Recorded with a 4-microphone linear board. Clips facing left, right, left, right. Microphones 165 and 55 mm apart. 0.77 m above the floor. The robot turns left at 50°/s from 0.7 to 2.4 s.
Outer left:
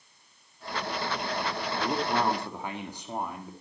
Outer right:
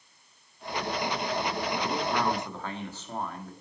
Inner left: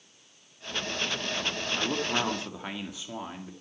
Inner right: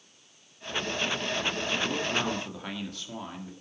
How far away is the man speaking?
About 1.7 m.